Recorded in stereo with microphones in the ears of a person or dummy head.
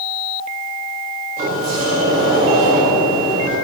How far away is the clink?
No clink in this recording.